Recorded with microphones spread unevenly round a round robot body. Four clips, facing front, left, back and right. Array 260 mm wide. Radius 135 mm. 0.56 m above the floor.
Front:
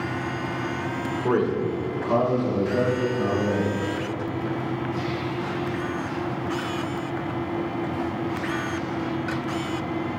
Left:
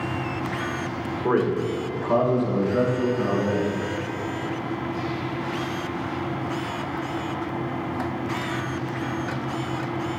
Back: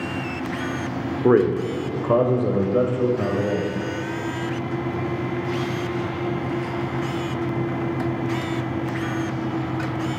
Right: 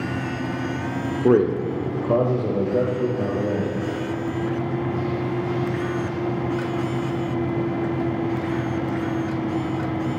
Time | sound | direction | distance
1.2 | a man speaking | 135° right | 1.2 m